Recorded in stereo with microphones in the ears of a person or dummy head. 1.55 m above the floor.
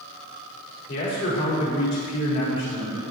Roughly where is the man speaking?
Left.